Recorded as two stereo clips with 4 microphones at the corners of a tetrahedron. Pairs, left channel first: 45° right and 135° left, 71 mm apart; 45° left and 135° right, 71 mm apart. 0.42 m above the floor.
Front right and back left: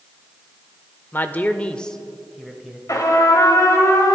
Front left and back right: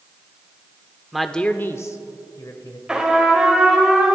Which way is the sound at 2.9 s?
55° right.